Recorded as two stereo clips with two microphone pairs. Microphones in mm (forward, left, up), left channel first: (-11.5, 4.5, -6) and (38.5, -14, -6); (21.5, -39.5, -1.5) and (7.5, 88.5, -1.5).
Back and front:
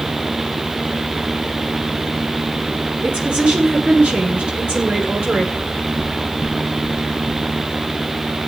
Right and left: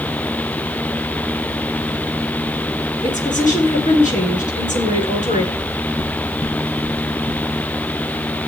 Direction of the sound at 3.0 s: 90° right.